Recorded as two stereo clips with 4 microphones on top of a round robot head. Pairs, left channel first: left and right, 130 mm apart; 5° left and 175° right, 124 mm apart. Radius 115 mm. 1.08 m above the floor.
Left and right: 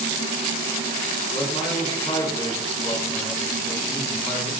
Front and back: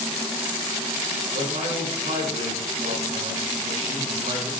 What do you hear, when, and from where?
1.3 s a man speaking: 165° left, 4.5 m